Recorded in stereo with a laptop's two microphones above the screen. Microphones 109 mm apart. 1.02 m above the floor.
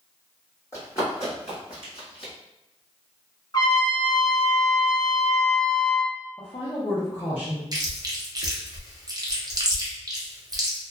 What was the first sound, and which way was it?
Running footsteps, 25° left (ahead or behind).